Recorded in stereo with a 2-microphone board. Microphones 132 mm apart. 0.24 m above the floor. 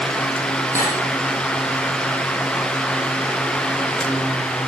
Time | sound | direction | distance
0.8 | cutlery clinking | 20° right (ahead or behind) | 5.5 m